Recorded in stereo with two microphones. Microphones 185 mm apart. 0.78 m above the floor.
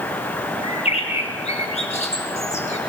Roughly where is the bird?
Left.